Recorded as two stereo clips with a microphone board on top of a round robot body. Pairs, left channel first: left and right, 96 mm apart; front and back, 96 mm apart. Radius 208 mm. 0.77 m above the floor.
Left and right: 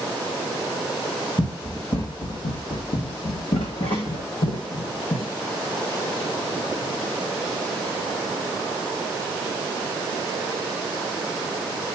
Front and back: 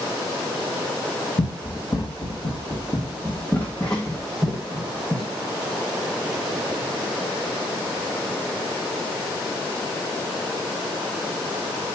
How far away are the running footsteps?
About 1.9 m.